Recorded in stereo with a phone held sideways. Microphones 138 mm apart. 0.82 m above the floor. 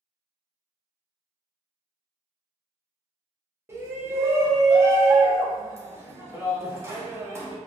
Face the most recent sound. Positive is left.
turn(degrees=-20)  # may be behind; listen again after turning